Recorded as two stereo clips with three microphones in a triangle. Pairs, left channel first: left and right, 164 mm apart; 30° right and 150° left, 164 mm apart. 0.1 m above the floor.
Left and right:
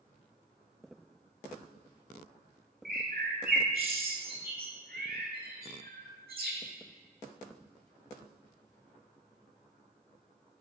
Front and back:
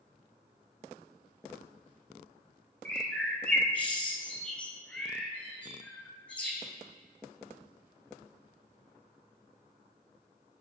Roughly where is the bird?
Behind right.